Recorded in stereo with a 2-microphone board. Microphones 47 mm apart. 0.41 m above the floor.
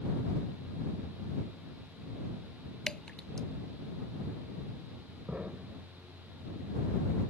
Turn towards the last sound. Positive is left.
turn(degrees=-30)  # may be behind; listen again after turning